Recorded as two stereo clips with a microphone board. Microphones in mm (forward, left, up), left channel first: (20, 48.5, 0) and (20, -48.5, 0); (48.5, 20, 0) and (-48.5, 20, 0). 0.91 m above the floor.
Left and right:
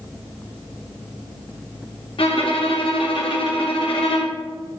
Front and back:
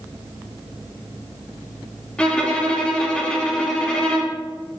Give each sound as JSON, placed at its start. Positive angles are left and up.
{"t": 2.2, "sound": "a violin", "azimuth_deg": 80, "distance_m": 0.7}